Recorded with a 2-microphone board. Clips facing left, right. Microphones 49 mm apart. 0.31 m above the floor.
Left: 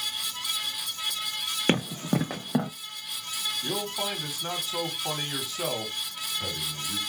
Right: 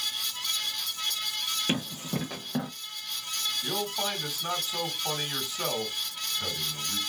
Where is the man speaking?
Centre (ahead or behind), 2.0 m.